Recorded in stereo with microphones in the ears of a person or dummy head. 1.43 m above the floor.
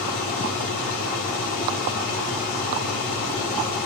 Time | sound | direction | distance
0.0 | an engine running | 55° left (ahead or behind) | 3.5 m